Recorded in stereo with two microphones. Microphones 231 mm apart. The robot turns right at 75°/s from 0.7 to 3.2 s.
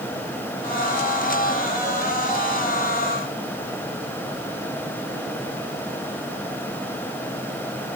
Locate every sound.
Only background noise.